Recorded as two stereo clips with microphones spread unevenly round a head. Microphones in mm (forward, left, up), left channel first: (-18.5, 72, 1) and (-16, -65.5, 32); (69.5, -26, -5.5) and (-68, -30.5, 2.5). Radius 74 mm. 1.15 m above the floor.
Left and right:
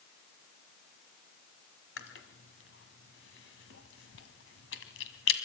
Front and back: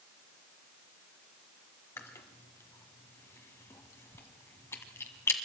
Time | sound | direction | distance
2.0 | chewing | 75° left | 1.8 m